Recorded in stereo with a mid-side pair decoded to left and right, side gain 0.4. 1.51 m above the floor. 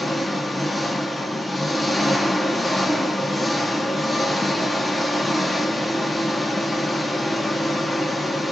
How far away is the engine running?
About 1.2 m.